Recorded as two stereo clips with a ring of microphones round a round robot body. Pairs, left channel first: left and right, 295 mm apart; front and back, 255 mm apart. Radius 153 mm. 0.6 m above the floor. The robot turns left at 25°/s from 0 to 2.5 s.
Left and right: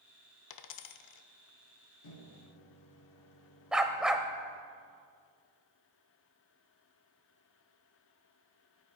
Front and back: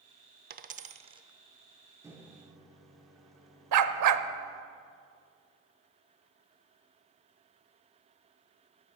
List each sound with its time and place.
0.5 s a dropped coin: 125° left, 0.7 m; by 1.3 s 105° left, 0.7 m
2.0 s a microwave: 100° left, 1.3 m; by 4.6 s 90° left, 1.3 m
3.7 s a dog barking: straight behind, 0.6 m